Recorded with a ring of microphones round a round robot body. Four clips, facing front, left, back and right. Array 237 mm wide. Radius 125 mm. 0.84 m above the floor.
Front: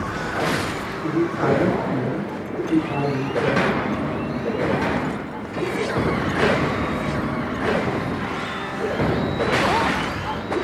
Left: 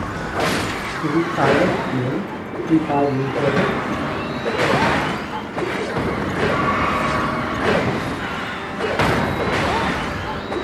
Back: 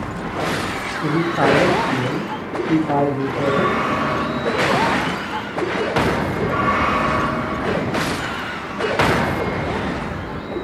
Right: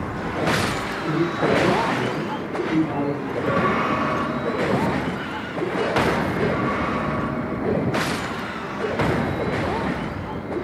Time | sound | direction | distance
1.0 | a man speaking | 135° left | 5.5 m